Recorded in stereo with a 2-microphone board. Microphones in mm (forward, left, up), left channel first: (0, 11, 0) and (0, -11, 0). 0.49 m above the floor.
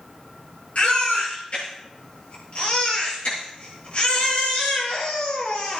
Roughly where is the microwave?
No microwave in this recording.